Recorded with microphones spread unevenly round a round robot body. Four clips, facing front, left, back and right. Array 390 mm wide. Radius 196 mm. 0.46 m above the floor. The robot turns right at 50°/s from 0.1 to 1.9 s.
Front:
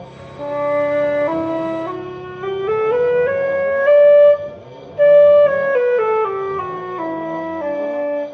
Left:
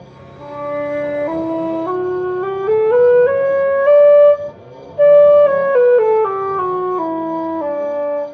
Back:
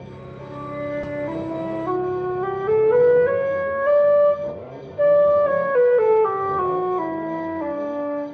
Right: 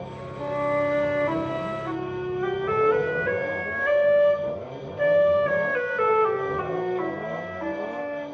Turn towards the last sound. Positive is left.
turn(degrees=75)